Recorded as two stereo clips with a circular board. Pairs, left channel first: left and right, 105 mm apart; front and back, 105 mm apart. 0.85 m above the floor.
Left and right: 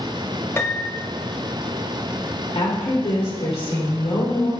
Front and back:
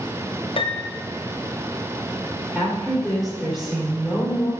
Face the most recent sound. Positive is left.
turn(degrees=95)